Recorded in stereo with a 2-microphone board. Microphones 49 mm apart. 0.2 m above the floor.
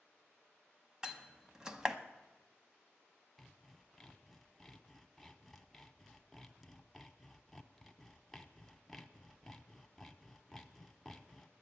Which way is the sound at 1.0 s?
15° right (ahead or behind).